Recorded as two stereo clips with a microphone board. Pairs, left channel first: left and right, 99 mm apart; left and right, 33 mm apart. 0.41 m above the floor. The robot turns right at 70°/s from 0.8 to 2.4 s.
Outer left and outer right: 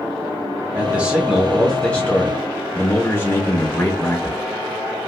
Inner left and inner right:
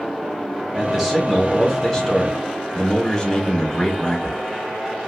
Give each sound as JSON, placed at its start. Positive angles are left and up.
{"t": 0.7, "sound": "a man speaking", "side_deg": -15, "distance_m": 0.8}